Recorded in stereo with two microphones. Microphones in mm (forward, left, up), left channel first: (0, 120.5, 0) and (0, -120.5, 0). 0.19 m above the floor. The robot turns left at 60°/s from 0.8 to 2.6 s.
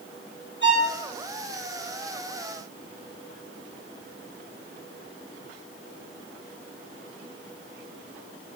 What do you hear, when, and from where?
0.6 s a violin: 50° left (ahead or behind), 4.5 m; by 0.9 s 45° left (ahead or behind), 4.5 m